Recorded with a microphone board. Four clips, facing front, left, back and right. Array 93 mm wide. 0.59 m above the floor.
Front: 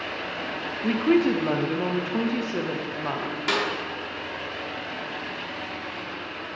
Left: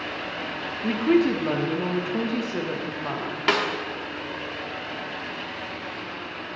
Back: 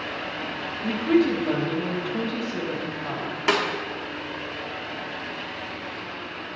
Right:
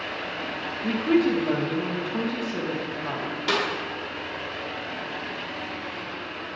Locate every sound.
0.8 s a woman speaking: 30° left, 0.6 m
3.5 s a snare drum: 120° left, 0.9 m